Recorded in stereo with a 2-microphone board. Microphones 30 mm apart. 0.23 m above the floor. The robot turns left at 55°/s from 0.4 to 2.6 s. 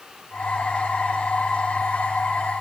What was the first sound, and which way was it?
Only background noise.